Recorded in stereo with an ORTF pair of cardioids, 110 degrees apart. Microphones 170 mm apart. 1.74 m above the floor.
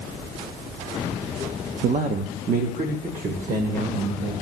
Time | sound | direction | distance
1.8 | a man speaking | 65° right | 0.5 m